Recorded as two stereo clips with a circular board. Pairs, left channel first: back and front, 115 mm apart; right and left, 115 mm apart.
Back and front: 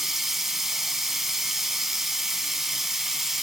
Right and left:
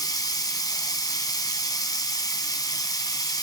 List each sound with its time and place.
0.0 s running water: 85° right, 1.0 m